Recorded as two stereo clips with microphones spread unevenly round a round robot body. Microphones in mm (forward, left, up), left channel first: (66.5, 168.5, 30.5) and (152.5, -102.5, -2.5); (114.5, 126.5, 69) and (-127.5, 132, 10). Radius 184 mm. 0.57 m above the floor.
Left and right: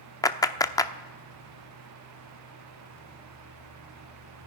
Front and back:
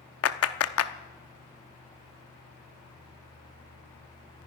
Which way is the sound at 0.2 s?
25° left.